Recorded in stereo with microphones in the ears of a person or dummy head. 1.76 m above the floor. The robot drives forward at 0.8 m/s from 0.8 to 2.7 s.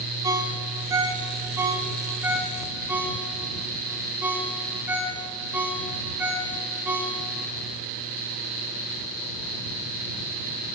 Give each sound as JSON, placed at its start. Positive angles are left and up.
{"t": 0.2, "sound": "a ringtone", "side_deg": -20, "distance_m": 1.3}